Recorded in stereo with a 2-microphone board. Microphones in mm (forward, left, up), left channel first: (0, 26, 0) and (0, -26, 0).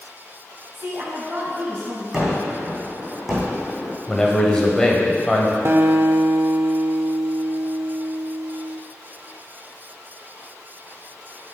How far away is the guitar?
About 0.7 m.